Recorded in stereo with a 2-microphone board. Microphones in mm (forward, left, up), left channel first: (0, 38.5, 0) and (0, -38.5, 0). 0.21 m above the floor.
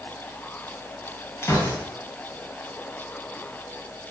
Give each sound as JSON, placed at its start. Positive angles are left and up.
{"t": 1.4, "sound": "a gunshot", "side_deg": 35, "distance_m": 2.0}